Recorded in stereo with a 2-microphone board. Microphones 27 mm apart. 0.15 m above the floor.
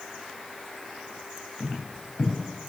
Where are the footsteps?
35° left (ahead or behind), 4 m.